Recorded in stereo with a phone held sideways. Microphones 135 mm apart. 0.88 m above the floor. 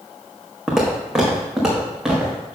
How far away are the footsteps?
About 3 m.